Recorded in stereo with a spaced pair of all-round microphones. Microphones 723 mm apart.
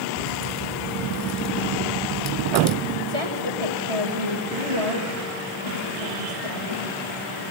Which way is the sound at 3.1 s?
40° right (ahead or behind).